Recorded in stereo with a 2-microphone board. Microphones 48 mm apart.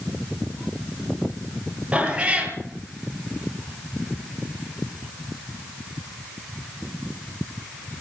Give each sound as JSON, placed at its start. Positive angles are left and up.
{"t": 1.9, "sound": "a cat meowing", "side_deg": -25, "distance_m": 3.0}